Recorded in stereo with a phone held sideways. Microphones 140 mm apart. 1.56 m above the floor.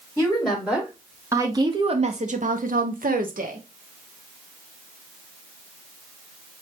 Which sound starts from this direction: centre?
A woman speaking, at 0.2 s.